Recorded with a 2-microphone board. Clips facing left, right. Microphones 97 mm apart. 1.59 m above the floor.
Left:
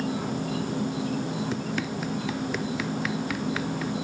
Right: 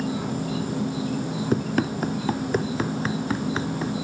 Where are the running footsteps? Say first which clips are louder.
Right 6 dB; 45° right (ahead or behind); by 3.9 s 25° right (ahead or behind).